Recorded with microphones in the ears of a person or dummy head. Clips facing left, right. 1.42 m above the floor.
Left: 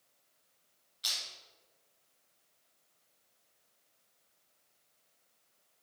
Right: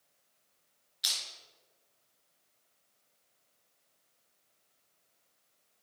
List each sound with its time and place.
1.0 s crushing: 25° right (ahead or behind), 3 m